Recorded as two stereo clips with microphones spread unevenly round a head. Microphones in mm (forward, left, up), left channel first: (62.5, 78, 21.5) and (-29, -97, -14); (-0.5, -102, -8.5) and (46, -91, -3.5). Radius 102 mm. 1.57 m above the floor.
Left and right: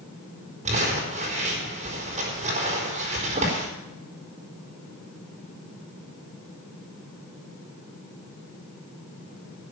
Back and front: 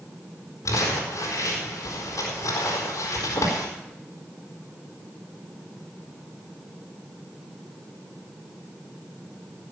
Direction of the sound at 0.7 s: Straight behind.